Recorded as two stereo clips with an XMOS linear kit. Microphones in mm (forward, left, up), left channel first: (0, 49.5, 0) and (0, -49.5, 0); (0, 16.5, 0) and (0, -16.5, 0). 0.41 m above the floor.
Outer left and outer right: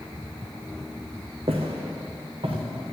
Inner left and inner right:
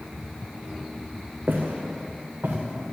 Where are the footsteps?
75° right (ahead or behind), 2 m; by 2.6 s 70° right (ahead or behind), 3.5 m.